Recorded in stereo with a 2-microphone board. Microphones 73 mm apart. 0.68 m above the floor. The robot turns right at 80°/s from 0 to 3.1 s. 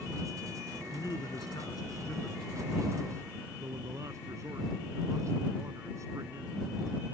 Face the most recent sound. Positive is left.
turn(degrees=-135)